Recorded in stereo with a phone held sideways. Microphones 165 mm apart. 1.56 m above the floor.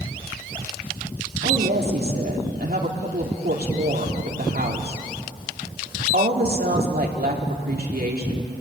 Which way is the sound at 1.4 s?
70° right (ahead or behind).